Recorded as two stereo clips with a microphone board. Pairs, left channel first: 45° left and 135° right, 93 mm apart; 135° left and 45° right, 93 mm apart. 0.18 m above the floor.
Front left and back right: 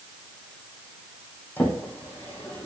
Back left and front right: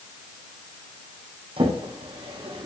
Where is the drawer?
25° right, 3.5 m.